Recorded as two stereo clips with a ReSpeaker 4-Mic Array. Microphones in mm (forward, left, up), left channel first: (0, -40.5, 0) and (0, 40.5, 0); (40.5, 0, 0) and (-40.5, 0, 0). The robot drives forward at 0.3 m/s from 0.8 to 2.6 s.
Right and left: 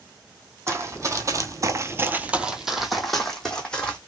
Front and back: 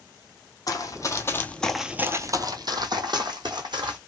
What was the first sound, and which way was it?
Running footsteps, 40° left.